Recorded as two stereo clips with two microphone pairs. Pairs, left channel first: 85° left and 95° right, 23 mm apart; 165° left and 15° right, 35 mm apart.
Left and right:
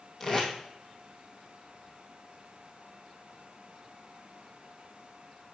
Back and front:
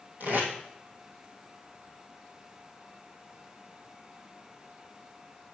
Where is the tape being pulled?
20° left, 1.9 m.